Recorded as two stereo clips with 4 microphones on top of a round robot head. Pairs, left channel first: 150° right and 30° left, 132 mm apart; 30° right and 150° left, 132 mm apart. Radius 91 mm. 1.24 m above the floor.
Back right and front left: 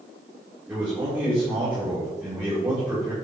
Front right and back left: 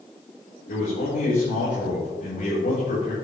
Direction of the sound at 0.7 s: 45° right.